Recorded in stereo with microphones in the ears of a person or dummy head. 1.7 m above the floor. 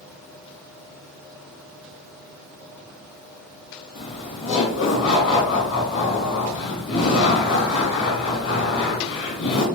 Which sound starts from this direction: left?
Laughter, at 4.0 s.